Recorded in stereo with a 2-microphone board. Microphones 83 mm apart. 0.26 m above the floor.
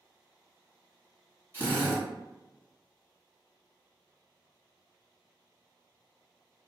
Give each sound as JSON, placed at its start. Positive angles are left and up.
{"t": 1.5, "sound": "a drill", "side_deg": -30, "distance_m": 1.9}